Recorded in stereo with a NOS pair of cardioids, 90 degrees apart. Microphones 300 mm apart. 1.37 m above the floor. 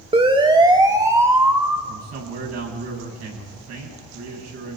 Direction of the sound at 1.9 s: 60° right.